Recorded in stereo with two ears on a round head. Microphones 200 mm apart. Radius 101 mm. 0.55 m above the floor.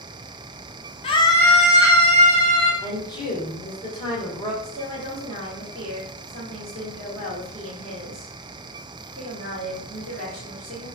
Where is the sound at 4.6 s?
30° right (ahead or behind), 1.4 m.